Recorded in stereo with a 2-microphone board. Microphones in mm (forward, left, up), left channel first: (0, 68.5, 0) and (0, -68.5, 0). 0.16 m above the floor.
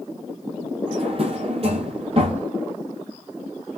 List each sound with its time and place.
0.9 s a drawer: 45° right (ahead or behind), 1.9 m